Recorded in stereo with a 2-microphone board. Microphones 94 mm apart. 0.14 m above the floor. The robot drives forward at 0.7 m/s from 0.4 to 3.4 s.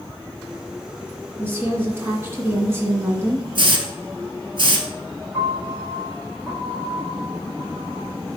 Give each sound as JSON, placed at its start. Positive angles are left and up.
{"t": 1.4, "sound": "a woman speaking", "side_deg": -20, "distance_m": 2.0}
{"t": 3.5, "sound": "a hiss", "side_deg": -55, "distance_m": 1.4}
{"t": 5.3, "sound": "a piano", "side_deg": -20, "distance_m": 4.0}